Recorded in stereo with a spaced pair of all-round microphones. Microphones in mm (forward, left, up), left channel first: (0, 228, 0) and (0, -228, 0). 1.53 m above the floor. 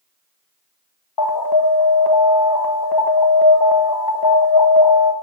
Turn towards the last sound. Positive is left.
turn(degrees=55)  # may be behind; listen again after turning